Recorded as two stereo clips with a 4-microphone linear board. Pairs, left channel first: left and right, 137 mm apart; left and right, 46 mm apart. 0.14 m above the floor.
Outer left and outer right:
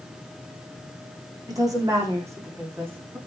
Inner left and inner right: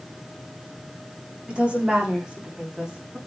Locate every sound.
1.5 s a woman speaking: 25° right (ahead or behind), 9.5 m; by 3.2 s 15° right (ahead or behind), 11 m